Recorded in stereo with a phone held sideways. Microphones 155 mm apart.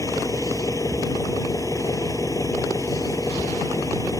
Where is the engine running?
20° left (ahead or behind).